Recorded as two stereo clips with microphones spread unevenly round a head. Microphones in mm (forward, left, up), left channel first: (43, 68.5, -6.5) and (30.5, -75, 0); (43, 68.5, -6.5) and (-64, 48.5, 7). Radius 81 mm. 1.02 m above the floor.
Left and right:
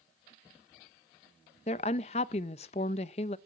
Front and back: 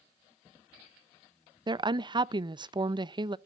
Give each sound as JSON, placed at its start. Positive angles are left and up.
{"t": 1.7, "sound": "a woman speaking", "azimuth_deg": 140, "distance_m": 0.5}